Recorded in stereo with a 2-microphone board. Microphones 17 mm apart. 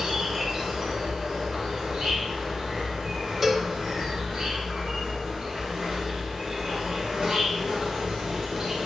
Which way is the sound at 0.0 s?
50° right (ahead or behind).